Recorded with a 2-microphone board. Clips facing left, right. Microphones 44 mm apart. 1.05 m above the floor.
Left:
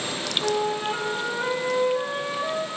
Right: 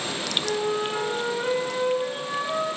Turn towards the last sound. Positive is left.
turn(degrees=70)  # may be behind; listen again after turning